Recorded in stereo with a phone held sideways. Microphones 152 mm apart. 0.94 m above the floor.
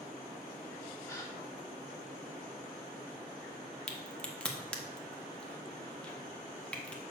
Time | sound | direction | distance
1.1 | a gasp | 20° left (ahead or behind) | 1.2 m
3.9 | a crack | 5° left (ahead or behind) | 0.8 m